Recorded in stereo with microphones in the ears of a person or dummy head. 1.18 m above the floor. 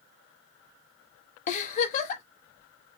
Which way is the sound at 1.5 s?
45° left (ahead or behind).